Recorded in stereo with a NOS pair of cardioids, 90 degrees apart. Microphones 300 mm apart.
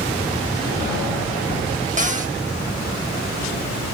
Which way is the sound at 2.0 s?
25° right.